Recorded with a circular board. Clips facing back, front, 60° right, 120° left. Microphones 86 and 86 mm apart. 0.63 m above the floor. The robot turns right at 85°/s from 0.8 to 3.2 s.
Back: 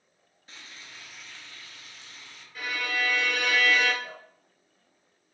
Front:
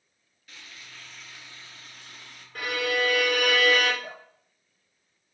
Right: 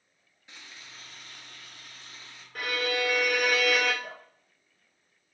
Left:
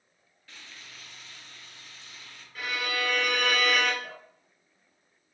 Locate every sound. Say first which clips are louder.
0.5 s frying: even, even; 125° right, 0.7 m; by 2.5 s 15° left, 0.7 m
2.5 s a violin: front 4 dB, right 2 dB; 30° right, 0.6 m; by 3.9 s 25° left, 0.6 m
4.0 s dripping: front 1 dB, even; 10° left, 1.2 m